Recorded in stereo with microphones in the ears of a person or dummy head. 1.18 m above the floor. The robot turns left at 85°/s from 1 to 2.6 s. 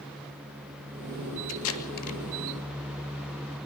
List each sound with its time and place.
1.5 s tape being pulled: 80° left, 2.5 m; by 2.2 s 35° left (ahead or behind), 2.5 m